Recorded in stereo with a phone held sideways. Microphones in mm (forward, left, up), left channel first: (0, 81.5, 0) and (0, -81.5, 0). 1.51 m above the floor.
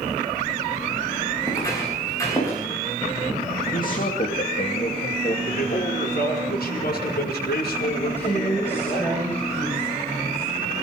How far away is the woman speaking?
About 7 m.